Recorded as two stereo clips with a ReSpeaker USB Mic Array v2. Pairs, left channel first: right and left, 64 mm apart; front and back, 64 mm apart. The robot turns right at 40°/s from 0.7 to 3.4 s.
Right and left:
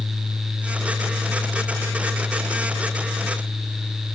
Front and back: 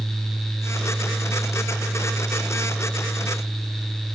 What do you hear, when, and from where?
Only background noise.